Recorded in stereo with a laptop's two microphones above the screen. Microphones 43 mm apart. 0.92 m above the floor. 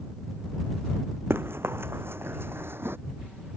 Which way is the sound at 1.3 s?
65° right (ahead or behind).